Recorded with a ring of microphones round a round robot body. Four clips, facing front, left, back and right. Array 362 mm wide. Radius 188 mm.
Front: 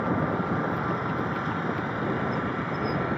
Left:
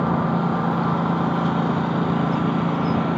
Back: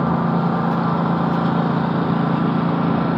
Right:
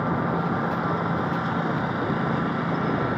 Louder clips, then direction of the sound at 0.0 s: Left 4 dB, back 7 dB; 150° left.